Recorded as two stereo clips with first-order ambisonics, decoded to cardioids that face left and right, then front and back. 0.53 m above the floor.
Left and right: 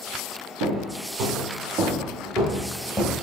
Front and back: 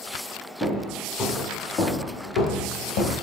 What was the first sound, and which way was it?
Footsteps, 75° right.